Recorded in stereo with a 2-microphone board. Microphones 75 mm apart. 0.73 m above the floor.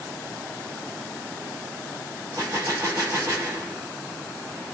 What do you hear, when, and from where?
2.4 s a gunshot: 50° right (ahead or behind), 1.5 m